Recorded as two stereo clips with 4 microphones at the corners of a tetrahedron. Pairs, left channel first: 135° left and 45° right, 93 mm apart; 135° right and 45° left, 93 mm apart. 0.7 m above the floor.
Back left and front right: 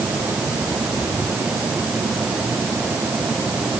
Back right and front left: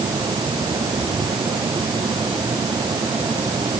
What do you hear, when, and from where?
Only background noise.